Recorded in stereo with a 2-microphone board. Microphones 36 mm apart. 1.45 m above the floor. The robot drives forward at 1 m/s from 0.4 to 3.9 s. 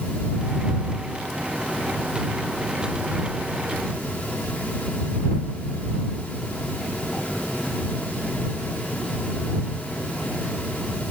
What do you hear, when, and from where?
Only background noise.